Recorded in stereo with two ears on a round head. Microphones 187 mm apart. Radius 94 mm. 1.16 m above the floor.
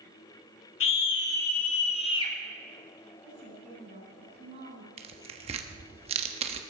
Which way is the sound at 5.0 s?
25° right (ahead or behind).